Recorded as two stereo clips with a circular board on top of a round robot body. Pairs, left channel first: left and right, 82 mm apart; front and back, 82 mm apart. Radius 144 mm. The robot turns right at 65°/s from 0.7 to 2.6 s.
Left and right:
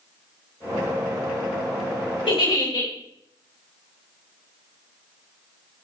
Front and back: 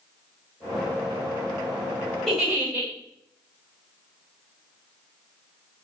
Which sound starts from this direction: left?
A giggle, at 2.3 s.